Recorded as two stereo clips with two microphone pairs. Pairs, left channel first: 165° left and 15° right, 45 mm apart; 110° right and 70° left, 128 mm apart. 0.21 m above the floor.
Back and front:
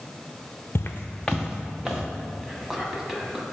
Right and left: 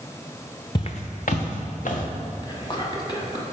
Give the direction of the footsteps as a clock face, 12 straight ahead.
5 o'clock.